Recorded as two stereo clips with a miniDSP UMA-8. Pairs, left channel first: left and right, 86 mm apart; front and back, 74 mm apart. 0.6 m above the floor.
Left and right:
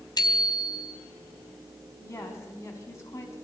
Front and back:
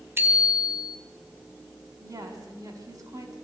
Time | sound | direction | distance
0.2 | a bicycle bell | 125° left | 3 m
2.0 | a woman speaking | 145° left | 4 m